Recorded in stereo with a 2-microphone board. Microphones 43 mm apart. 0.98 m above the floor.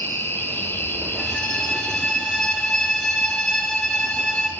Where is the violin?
10° left (ahead or behind), 2.5 m.